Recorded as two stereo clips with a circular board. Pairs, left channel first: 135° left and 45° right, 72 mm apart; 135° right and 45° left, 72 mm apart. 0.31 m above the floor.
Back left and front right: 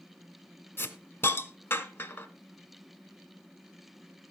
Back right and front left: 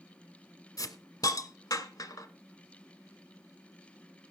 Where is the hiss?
165° right, 1.2 m.